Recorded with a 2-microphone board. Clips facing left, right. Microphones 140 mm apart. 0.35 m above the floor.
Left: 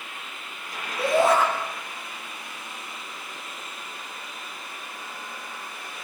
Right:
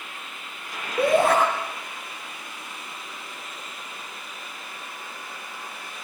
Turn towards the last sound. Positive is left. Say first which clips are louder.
# right 1 dB
turn(degrees=-60)  # may be behind; listen again after turning